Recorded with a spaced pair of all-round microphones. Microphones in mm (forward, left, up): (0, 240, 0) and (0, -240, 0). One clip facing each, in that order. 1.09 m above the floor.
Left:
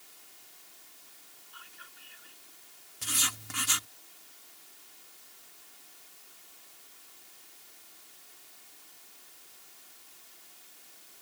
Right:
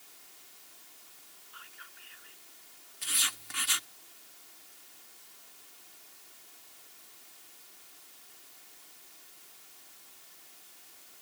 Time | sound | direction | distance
1.5 | whispering | 55° left (ahead or behind) | ?
3.0 | writing | 65° left (ahead or behind) | ?